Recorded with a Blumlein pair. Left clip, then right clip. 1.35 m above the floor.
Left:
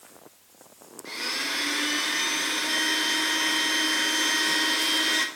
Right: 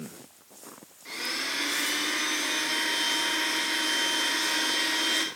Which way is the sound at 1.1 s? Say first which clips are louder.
Left 2 dB; 5° left.